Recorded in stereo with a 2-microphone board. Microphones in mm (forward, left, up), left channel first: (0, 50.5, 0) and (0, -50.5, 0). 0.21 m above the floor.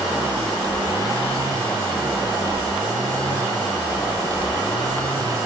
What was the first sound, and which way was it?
Only background noise.